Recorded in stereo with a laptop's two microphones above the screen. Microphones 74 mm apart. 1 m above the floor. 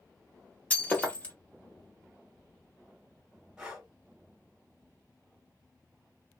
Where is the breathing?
10° right (ahead or behind), 1.3 m.